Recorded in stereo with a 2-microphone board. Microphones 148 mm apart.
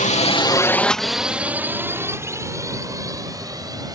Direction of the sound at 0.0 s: 60° left (ahead or behind).